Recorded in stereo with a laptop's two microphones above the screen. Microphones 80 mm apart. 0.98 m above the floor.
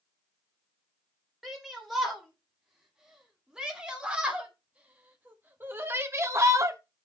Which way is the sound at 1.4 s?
5° right (ahead or behind).